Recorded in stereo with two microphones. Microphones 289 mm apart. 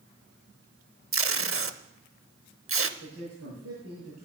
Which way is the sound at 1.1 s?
50° right (ahead or behind).